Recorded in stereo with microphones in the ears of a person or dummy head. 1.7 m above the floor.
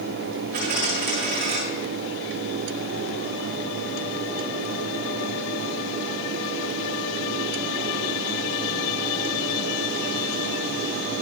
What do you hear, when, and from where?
0.5 s a dropped coin: 50° right (ahead or behind), 6.5 m